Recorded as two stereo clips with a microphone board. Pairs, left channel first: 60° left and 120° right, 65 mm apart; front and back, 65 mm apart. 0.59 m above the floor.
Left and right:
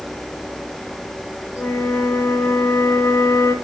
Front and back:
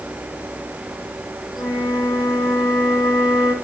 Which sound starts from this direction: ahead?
A flute, at 1.6 s.